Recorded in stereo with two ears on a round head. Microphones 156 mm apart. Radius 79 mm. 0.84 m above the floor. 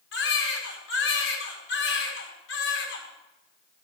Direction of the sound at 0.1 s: 75° left (ahead or behind).